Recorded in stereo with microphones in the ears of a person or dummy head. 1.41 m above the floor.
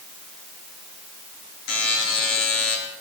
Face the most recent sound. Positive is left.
turn(degrees=70)  # may be behind; listen again after turning